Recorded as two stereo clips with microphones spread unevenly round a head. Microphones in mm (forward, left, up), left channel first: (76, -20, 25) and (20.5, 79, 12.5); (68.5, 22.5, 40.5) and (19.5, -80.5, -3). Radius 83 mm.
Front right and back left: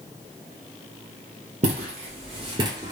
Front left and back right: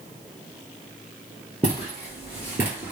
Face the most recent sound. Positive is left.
turn(degrees=125)